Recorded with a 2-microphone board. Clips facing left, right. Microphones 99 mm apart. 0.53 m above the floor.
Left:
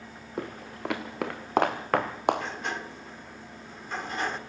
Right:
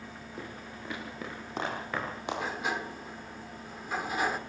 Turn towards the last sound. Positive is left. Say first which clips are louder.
# even
turn(degrees=-5)  # may be behind; listen again after turning